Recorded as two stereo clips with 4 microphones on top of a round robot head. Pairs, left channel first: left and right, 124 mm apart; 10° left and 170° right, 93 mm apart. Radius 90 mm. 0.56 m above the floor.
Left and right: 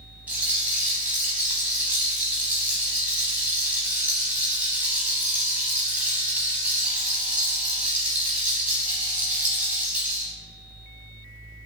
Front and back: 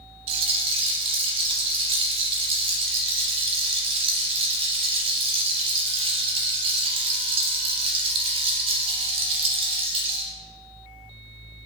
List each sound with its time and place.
0.3 s a rattle: 170° right, 0.5 m